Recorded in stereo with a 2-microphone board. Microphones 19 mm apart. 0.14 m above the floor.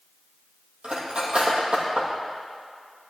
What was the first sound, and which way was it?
Cutlery clinking, 55° right (ahead or behind).